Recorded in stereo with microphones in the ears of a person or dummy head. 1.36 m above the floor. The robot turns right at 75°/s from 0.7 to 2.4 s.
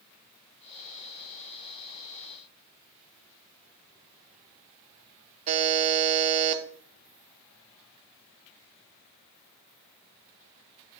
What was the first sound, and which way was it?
A buzzer, 40° right (ahead or behind).